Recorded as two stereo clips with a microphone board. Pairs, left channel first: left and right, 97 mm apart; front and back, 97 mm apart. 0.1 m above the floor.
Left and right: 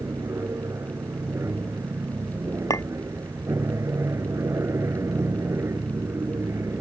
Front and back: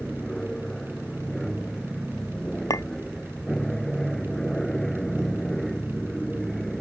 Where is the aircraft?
80° right.